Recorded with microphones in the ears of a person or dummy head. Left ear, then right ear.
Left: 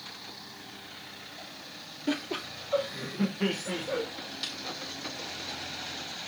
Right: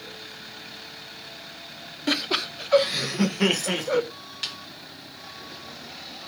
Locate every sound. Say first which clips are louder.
2.1 s laughter: right 8 dB; 35° right (ahead or behind), 0.8 m; by 4.1 s 65° right (ahead or behind), 0.9 m
4.4 s a snare drum: right 5 dB; 40° right (ahead or behind), 1.5 m